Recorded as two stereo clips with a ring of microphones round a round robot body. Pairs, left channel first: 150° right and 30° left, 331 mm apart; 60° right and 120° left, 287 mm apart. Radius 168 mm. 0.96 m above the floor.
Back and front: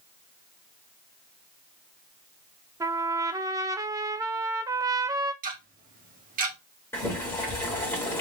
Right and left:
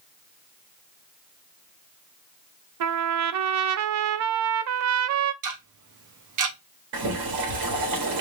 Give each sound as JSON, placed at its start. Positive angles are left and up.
{"t": 2.8, "sound": "a trumpet", "azimuth_deg": 110, "distance_m": 0.5}
{"t": 5.4, "sound": "ticking", "azimuth_deg": 95, "distance_m": 1.1}
{"t": 6.9, "sound": "boiling", "azimuth_deg": 125, "distance_m": 2.0}